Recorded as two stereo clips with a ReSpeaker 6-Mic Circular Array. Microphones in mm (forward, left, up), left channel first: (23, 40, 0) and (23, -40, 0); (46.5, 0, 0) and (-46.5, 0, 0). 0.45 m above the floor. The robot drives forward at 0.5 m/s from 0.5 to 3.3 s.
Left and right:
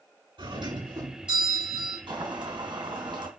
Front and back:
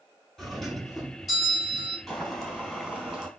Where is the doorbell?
90° right, 6.5 m; by 2.0 s 95° right, 6.5 m.